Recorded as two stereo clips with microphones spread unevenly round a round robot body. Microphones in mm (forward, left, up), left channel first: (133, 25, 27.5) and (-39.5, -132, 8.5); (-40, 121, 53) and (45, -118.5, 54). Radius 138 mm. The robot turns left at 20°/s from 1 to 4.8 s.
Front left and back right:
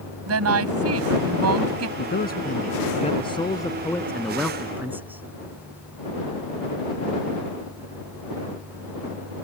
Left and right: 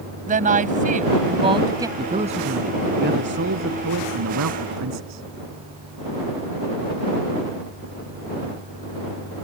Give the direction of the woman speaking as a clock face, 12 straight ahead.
4 o'clock.